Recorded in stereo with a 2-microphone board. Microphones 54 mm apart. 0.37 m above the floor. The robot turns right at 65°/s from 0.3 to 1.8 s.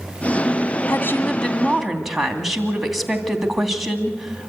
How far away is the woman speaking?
About 2.5 m.